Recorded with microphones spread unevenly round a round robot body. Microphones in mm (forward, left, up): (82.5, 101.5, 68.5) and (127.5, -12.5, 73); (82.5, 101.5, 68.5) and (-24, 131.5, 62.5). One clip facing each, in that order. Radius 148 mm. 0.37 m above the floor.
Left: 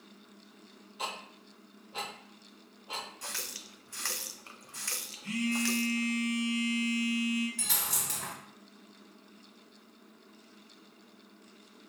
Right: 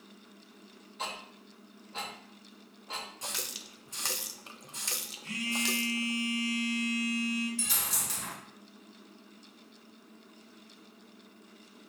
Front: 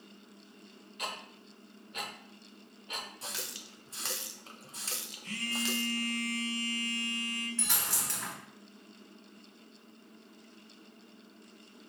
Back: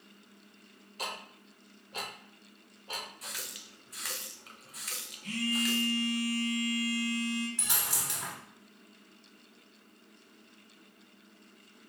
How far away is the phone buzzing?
About 1.9 m.